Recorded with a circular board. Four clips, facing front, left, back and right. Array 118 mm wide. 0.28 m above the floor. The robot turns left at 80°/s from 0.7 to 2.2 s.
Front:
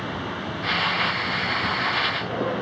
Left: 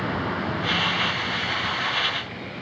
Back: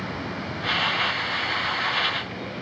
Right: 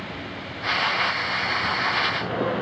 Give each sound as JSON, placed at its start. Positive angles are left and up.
{"t": 0.0, "sound": "a vehicle", "azimuth_deg": 70}